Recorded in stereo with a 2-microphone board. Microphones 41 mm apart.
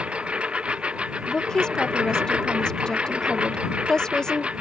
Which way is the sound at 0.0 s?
25° right (ahead or behind).